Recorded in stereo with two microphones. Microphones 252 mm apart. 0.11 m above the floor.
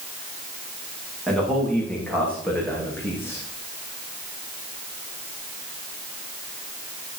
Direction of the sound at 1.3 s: Centre (ahead or behind).